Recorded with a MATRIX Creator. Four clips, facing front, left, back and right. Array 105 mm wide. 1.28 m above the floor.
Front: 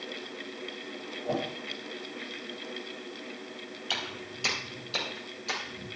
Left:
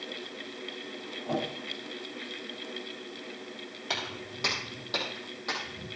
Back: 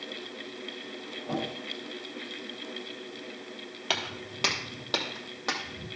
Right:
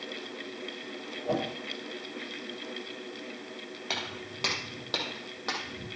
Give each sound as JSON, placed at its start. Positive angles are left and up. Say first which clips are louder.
{"t": 1.2, "sound": "a whoosh", "louder": "right 2 dB, front 1 dB", "azimuth_deg": -55, "distance_m": 5.5}
{"t": 3.9, "sound": "footsteps", "louder": "left 2 dB, back 4 dB", "azimuth_deg": -170, "distance_m": 2.0}